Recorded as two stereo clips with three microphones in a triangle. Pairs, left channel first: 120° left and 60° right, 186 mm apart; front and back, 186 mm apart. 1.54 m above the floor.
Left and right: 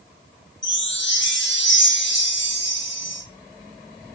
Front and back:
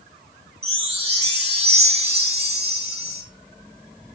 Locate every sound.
0.6 s a chime: 125° left, 1.7 m